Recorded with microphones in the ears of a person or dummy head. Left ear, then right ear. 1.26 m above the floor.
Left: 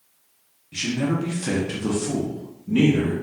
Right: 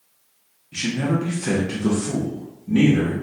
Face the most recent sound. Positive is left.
turn(degrees=10)  # may be behind; listen again after turning